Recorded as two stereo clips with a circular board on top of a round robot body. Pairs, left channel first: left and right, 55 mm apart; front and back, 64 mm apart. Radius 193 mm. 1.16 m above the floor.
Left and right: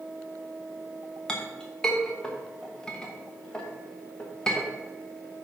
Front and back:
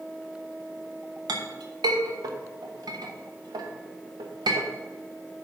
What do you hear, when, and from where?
1.3 s a clink: 170° left, 1.0 m